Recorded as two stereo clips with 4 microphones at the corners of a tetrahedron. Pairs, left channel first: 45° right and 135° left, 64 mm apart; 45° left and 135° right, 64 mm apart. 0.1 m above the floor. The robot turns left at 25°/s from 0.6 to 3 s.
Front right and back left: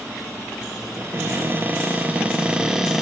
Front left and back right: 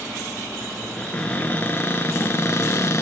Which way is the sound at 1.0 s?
110° left.